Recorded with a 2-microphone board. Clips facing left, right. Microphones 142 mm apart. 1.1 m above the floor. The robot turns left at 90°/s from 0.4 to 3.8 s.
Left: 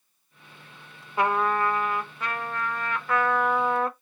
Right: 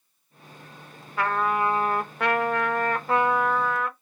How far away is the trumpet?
About 0.6 m.